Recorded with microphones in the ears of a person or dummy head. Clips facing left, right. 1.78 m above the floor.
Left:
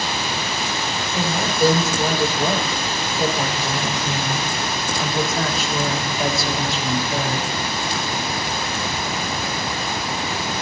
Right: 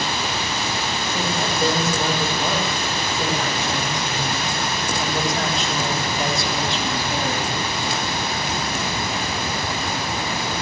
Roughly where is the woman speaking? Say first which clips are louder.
Left 3 dB; centre.